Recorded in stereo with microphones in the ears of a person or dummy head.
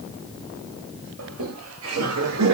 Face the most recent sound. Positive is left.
turn(degrees=-75)  # may be behind; listen again after turning